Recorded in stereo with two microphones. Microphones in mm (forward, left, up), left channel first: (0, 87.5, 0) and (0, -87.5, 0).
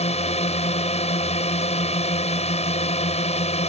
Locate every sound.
0.0 s a drone: 40° left (ahead or behind)